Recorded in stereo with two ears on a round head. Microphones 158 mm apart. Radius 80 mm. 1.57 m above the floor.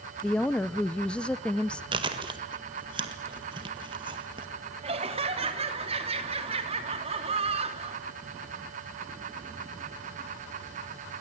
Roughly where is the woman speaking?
Centre.